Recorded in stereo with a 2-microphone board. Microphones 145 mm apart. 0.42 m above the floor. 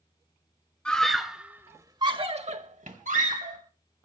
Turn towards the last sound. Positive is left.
turn(degrees=-65)  # may be behind; listen again after turning